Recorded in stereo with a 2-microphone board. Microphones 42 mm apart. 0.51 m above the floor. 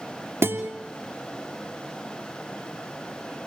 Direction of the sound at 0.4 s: 80° right.